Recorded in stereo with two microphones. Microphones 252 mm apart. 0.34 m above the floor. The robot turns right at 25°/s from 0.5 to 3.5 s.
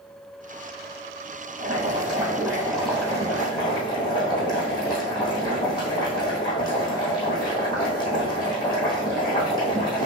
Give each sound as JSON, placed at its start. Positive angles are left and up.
{"t": 1.6, "sound": "boiling", "azimuth_deg": -30, "distance_m": 2.5}